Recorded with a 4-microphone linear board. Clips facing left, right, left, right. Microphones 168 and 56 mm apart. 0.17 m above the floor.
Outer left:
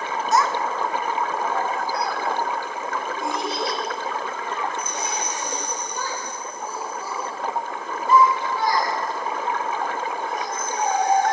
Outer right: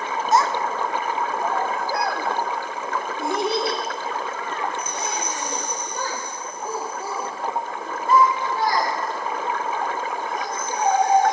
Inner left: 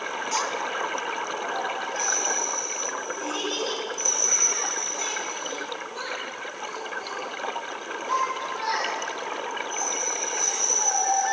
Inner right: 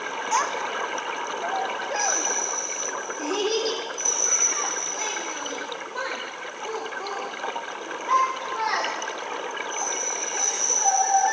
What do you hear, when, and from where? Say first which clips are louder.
0.3 s a child speaking: outer right 1 dB, inner right 4 dB; 25° right (ahead or behind), 0.7 m; by 11.3 s 60° right (ahead or behind), 10.5 m